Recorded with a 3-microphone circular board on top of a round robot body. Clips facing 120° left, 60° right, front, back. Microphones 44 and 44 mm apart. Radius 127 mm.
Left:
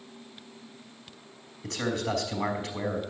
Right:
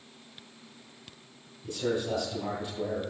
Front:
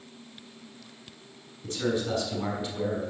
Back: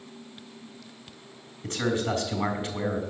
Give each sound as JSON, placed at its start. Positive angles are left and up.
{"t": 1.6, "sound": "a man speaking", "azimuth_deg": 135, "distance_m": 3.5}